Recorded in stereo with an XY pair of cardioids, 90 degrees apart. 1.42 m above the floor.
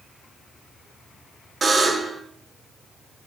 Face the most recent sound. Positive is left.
turn(degrees=-40)